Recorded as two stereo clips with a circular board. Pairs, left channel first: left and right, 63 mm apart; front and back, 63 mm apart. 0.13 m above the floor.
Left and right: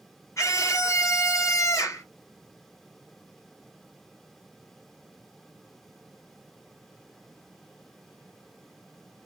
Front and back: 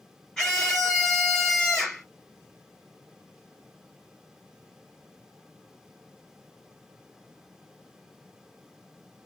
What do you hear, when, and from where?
0.4 s a scream: 85° left, 2.5 m